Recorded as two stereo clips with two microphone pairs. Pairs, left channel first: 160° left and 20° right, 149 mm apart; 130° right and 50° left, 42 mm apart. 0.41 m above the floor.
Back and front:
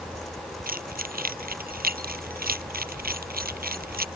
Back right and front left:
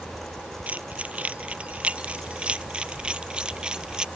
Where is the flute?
I don't hear a flute.